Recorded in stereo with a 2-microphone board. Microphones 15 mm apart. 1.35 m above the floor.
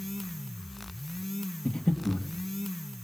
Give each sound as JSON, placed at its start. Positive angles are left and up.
{"t": 1.6, "sound": "breathing", "side_deg": 75, "distance_m": 1.9}